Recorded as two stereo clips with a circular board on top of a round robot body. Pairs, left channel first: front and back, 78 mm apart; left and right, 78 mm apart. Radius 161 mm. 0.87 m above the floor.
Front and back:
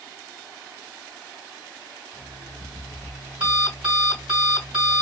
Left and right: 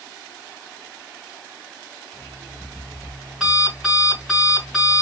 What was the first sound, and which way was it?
An alarm clock, 175° right.